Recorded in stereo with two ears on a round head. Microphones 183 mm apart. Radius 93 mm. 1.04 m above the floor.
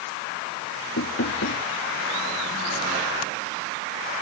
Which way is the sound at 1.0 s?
60° left (ahead or behind).